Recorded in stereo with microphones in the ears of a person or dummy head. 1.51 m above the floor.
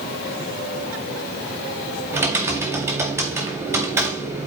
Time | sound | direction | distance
2.1 | typing on a keyboard | 10° right (ahead or behind) | 1.9 m